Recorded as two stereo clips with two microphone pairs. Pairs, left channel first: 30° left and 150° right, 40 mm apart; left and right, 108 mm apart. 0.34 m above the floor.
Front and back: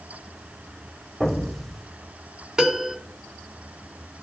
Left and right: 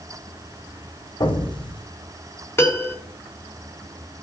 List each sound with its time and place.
1.2 s an explosion: 110° left, 1.0 m
2.6 s a piano: 140° left, 1.3 m